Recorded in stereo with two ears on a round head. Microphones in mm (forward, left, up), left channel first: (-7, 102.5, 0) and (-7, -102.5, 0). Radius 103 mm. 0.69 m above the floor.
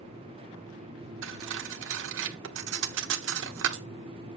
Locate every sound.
1.2 s cutlery clinking: 60° right (ahead or behind), 1.2 m